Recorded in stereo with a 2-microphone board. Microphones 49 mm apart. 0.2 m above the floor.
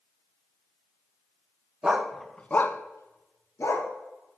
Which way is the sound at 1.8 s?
20° right (ahead or behind).